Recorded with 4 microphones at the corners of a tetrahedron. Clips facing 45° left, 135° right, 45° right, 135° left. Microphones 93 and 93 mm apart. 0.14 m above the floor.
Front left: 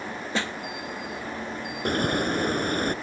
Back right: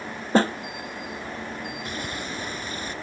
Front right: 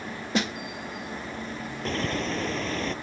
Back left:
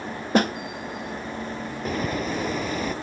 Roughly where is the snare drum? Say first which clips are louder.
Back right 11 dB, back left 7 dB; behind.